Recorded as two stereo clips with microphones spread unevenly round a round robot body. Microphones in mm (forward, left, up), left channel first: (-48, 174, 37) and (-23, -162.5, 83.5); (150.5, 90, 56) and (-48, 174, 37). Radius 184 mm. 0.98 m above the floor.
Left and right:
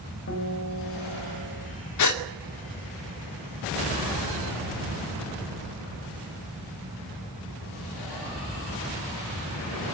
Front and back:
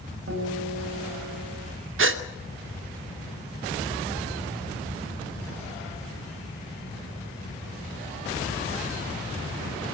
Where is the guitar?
145° left, 7 m.